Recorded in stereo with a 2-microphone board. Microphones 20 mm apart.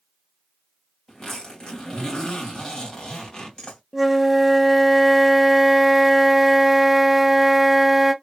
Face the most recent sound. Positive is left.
turn(degrees=-10)  # may be behind; listen again after turning